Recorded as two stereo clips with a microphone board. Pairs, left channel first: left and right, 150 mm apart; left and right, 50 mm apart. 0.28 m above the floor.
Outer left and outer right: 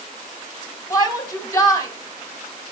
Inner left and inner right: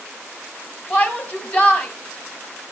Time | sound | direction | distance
0.9 | a shout | 25° left (ahead or behind) | 2 m